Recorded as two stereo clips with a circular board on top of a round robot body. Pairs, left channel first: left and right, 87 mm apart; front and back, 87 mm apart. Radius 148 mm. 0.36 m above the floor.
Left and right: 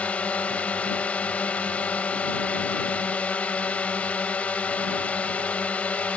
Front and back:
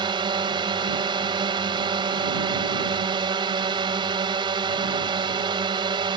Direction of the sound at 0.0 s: 165° left.